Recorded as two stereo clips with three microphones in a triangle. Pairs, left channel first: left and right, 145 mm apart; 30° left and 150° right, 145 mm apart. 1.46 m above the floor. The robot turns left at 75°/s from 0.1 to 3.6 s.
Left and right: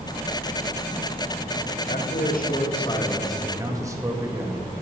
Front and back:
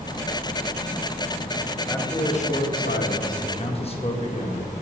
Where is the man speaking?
110° left, 1.8 m; by 4.7 s 20° right, 1.8 m.